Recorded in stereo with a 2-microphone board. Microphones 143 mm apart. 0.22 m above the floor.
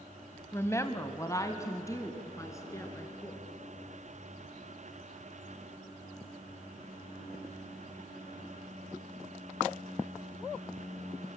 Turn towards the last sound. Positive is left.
turn(degrees=20)  # may be behind; listen again after turning